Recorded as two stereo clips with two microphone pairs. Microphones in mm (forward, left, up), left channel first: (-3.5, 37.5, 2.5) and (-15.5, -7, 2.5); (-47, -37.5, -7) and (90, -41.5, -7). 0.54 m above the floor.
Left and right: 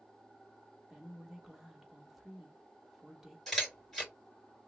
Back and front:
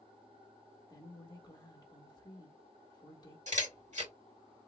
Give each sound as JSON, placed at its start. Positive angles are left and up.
{"t": 0.9, "sound": "a woman speaking", "azimuth_deg": 175, "distance_m": 0.9}
{"t": 3.5, "sound": "a camera shutter", "azimuth_deg": -10, "distance_m": 2.5}